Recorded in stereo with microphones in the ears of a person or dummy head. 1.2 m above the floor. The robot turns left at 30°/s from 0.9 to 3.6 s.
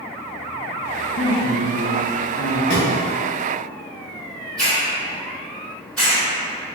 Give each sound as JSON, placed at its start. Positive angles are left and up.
{"t": 1.2, "sound": "a woman speaking", "azimuth_deg": 95, "distance_m": 0.8}
{"t": 2.7, "sound": "a thud", "side_deg": 55, "distance_m": 1.2}
{"t": 4.6, "sound": "a hiss", "side_deg": 5, "distance_m": 1.7}